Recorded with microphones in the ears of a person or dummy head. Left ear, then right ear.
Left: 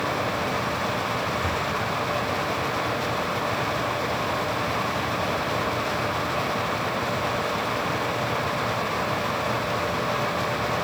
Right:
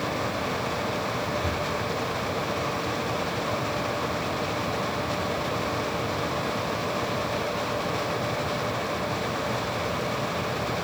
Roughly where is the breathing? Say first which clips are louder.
Left 2 dB; left.